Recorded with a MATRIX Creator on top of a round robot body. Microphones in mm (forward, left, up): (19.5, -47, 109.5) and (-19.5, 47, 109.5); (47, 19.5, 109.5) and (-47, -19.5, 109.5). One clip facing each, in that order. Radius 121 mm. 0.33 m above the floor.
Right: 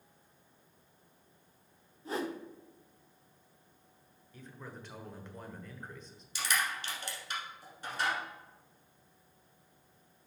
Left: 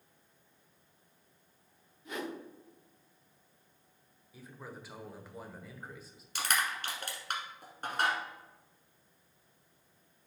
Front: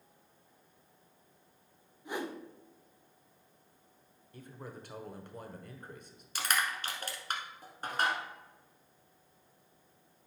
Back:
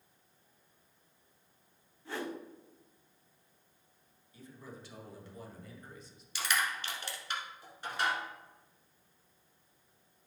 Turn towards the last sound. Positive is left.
turn(degrees=70)